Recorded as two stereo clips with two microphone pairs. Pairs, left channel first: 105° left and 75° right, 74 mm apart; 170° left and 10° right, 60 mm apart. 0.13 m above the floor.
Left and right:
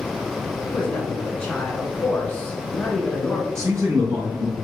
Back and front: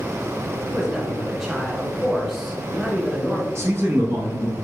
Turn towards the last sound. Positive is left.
turn(degrees=-40)